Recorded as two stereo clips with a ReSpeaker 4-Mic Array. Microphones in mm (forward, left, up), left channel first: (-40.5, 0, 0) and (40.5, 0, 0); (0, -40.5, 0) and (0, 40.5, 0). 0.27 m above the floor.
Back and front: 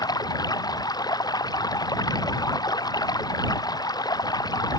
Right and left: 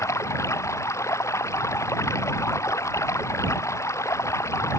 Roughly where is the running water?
Behind right.